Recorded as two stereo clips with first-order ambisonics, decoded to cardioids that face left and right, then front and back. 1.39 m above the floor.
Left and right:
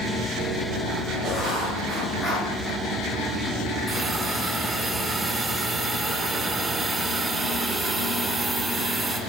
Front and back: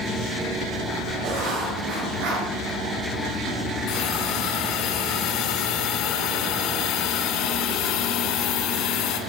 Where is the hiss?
10° right, 2.5 m.